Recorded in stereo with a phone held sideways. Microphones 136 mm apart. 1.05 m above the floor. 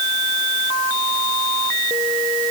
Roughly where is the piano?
No piano in this recording.